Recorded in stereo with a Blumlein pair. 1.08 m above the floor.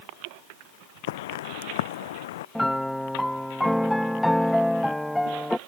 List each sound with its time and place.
1.1 s footsteps: 55° left
2.5 s a piano: straight ahead